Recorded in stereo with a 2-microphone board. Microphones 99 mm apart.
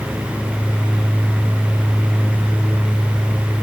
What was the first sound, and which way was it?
Only background noise.